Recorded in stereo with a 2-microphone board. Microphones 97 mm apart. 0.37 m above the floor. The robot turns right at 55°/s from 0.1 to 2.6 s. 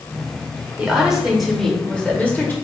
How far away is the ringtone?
No ringtone in this recording.